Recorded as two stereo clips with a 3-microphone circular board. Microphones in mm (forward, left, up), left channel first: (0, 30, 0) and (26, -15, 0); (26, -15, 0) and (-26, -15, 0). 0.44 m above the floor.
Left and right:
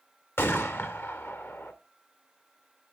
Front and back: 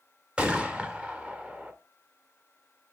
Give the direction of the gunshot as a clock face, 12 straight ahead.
8 o'clock.